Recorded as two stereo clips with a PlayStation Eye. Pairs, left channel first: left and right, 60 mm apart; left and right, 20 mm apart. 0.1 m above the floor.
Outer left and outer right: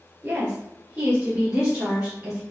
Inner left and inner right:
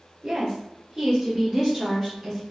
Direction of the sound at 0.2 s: 25° right (ahead or behind).